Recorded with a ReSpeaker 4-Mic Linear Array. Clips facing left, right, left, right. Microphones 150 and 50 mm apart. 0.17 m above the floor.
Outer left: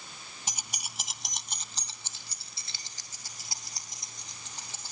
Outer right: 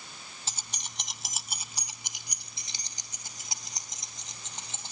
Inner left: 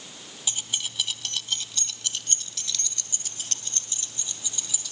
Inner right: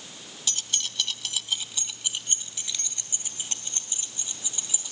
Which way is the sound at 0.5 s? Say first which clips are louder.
Outer left 2 dB, inner left 1 dB; 15° left (ahead or behind).